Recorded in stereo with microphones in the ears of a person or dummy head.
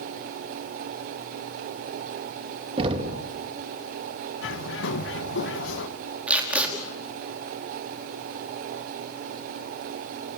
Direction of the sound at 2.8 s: 30° right (ahead or behind).